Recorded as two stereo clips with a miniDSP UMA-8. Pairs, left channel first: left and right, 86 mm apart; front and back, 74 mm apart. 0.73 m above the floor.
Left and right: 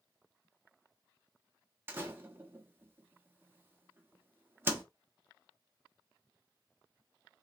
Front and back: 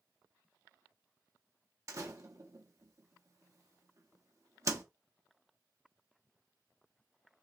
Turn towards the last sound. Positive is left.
turn(degrees=-150)